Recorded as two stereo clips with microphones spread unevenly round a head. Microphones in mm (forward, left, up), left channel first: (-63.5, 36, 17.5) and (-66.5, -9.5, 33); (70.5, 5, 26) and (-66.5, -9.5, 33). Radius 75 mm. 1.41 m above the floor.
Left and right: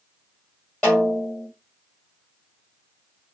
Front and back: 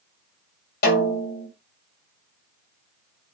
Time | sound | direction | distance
0.8 | a snare drum | 5° right | 1.9 m